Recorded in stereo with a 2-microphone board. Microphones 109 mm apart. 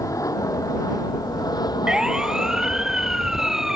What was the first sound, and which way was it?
An aircraft, 30° left (ahead or behind).